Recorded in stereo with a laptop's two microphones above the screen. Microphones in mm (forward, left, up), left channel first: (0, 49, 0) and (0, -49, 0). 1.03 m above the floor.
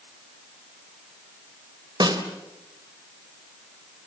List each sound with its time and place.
2.0 s a snare drum: 45° right (ahead or behind), 3 m